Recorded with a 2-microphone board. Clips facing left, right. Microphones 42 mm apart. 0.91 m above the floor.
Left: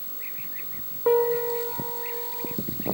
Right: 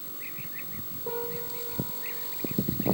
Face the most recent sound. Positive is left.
turn(degrees=75)  # may be behind; listen again after turning